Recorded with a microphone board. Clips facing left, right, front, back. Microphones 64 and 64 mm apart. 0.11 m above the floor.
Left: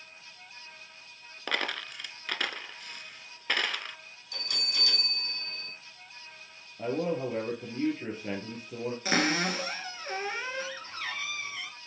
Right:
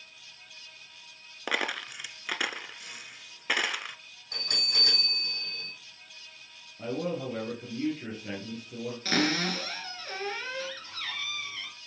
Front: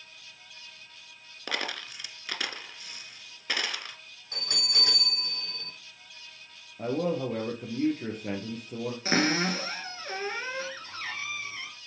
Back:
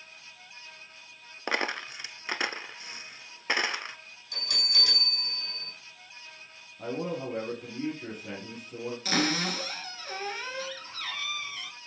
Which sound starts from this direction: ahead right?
A bell, at 4.3 s.